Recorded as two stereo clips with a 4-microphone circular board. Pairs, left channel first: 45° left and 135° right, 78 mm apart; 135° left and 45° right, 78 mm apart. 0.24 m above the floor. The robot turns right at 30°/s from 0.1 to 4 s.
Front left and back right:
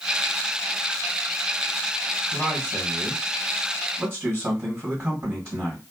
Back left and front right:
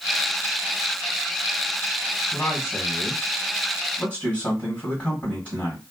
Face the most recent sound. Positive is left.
turn(degrees=-160)